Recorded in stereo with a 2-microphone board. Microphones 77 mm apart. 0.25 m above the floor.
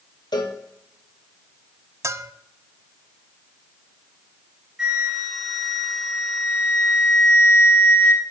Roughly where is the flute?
Centre.